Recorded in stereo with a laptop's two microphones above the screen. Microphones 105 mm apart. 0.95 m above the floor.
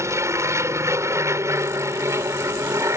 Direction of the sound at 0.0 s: 25° right (ahead or behind).